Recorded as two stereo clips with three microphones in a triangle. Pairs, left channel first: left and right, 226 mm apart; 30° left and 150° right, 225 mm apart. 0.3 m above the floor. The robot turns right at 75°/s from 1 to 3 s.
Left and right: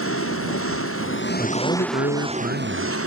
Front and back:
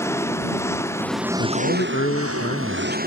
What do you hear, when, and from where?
0.0 s an engine running: 110° left; by 3.1 s 100° right
1.4 s a man speaking: 15° left; by 3.0 s 135° left